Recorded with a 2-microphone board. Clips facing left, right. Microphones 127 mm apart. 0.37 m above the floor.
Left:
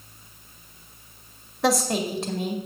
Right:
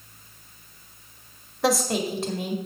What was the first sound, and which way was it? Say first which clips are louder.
A woman speaking: even; centre (ahead or behind).